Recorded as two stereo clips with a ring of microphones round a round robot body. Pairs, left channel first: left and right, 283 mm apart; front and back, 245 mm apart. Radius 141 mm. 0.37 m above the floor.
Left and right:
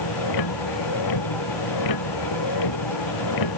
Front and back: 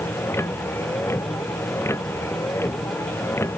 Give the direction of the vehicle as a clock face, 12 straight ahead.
9 o'clock.